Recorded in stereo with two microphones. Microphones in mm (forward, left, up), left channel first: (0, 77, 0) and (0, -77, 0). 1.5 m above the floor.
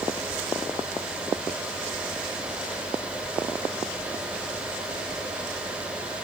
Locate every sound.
Only background noise.